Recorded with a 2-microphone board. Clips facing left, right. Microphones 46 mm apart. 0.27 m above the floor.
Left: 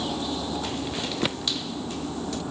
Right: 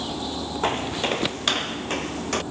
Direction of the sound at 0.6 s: 40° right (ahead or behind).